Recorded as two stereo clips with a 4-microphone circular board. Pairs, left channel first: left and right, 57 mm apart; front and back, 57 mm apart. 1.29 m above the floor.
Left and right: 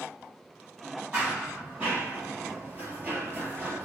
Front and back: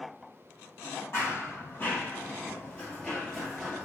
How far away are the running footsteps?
About 1.9 m.